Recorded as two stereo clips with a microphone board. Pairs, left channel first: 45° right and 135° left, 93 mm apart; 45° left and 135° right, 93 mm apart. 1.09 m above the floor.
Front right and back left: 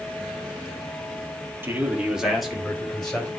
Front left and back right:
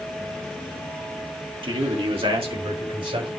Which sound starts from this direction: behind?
A man speaking, at 1.6 s.